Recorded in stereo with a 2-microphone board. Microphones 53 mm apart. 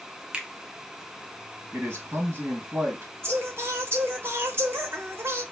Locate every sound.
0.3 s a finger snap: 20° right (ahead or behind), 0.5 m
1.7 s a man speaking: 55° right (ahead or behind), 1.3 m
3.2 s singing: 50° right (ahead or behind), 0.7 m